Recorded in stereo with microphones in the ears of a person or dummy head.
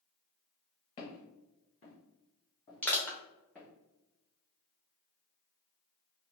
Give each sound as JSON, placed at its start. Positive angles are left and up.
{"t": 1.0, "sound": "footsteps", "side_deg": 35, "distance_m": 1.7}
{"t": 2.8, "sound": "crushing", "side_deg": 10, "distance_m": 1.0}